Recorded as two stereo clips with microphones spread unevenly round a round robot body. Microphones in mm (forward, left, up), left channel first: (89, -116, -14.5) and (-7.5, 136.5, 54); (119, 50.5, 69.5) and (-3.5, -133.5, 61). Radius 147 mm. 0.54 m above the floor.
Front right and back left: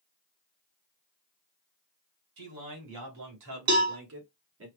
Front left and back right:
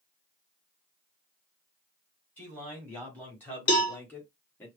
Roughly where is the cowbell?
Left.